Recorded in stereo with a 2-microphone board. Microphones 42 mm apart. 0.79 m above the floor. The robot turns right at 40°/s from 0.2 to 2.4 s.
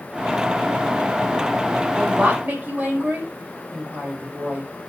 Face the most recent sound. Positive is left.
turn(degrees=-35)  # may be behind; listen again after turning